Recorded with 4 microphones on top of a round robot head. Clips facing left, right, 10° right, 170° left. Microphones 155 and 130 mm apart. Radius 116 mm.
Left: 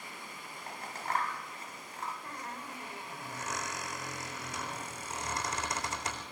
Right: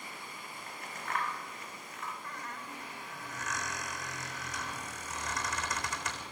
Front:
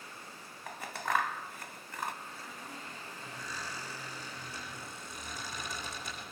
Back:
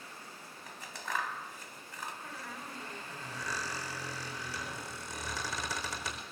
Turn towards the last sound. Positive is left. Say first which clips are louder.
# left 1 dB, back 2 dB
turn(degrees=150)